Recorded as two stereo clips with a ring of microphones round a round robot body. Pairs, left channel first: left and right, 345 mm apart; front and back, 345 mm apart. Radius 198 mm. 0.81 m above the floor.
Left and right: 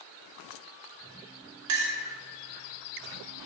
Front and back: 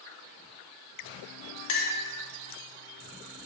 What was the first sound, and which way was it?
A clink, 45° right.